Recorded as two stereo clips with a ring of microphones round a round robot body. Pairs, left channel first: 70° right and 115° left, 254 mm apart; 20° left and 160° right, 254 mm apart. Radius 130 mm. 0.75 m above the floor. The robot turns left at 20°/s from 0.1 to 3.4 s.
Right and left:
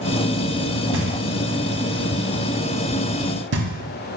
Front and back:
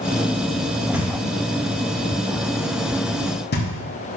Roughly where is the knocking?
Behind left.